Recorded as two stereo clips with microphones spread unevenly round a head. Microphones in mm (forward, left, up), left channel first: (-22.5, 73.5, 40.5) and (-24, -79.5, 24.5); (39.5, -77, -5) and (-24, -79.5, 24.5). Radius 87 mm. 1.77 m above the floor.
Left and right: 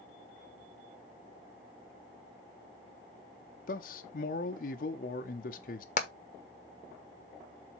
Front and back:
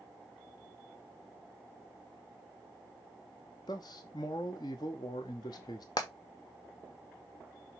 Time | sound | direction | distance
3.7 | a man speaking | 50° left | 0.6 m
6.0 | hammering | 65° left | 1.0 m